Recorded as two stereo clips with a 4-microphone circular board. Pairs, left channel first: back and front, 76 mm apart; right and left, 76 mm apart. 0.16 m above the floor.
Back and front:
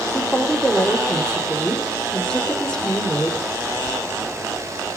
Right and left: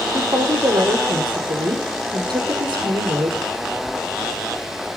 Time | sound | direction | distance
0.1 | a woman speaking | 100° left | 5 m